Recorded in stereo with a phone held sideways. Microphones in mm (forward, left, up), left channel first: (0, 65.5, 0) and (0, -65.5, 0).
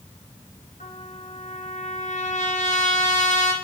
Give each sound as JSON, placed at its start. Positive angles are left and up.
{"t": 0.8, "sound": "a trumpet", "side_deg": 75, "distance_m": 1.8}